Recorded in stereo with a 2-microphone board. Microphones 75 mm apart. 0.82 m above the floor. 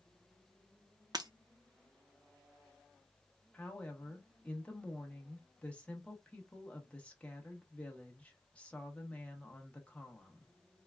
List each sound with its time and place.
1.1 s breaking glass: 60° right (ahead or behind), 0.6 m
3.5 s a woman speaking: 15° left (ahead or behind), 0.9 m